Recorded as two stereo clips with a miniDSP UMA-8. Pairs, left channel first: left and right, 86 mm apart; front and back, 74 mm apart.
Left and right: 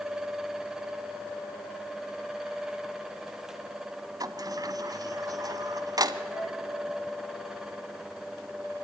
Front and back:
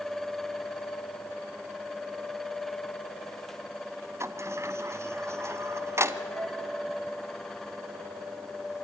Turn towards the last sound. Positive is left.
turn(degrees=-35)